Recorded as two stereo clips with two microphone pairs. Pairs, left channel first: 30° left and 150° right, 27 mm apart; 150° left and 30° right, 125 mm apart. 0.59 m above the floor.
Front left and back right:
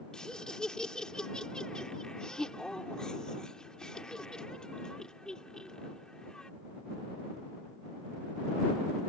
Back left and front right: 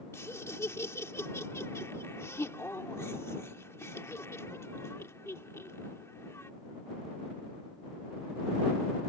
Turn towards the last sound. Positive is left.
turn(degrees=85)